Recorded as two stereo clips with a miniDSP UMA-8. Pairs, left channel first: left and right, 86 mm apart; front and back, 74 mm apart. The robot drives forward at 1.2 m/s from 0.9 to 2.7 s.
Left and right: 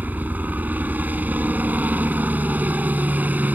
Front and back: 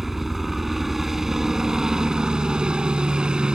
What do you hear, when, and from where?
0.0 s a helicopter: 100° right; by 3.5 s 125° right